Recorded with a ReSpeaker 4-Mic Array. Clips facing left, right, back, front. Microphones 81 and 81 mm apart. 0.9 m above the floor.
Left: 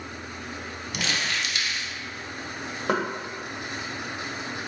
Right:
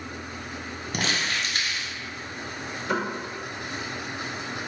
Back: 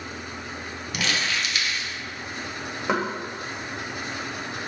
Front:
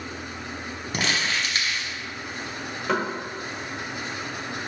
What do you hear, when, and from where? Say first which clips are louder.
0.9 s crumpling: right 1 dB, front 1 dB; 50° right, 0.8 m
2.9 s knocking: left 2 dB, even; 110° left, 1.2 m